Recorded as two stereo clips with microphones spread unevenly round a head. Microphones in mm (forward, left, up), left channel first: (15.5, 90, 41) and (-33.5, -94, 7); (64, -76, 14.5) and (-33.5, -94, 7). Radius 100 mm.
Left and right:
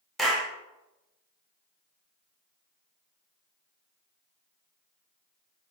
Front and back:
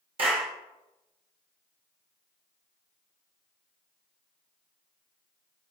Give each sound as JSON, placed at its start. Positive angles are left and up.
{"t": 0.2, "sound": "a clap", "azimuth_deg": 160, "distance_m": 0.7}